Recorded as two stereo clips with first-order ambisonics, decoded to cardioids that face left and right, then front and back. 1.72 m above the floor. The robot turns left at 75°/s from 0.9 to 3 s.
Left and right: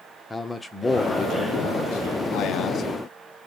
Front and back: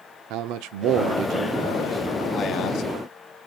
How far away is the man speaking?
About 0.6 m.